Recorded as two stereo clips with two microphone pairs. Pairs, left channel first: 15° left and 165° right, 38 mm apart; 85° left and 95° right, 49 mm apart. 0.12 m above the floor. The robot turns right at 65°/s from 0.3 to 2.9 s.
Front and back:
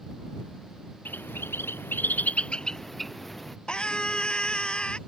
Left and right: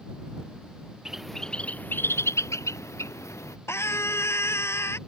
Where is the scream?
75° left.